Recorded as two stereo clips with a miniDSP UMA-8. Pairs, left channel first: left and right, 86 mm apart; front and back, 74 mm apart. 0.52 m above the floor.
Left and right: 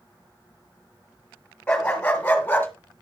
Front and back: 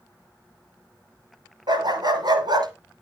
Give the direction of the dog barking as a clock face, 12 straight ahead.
6 o'clock.